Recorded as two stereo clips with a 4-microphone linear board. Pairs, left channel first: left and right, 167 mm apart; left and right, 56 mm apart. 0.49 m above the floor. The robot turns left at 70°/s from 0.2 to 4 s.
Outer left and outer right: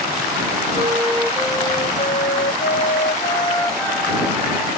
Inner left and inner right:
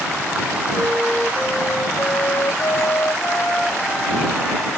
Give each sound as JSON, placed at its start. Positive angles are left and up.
{"t": 0.7, "sound": "a flute", "azimuth_deg": -140}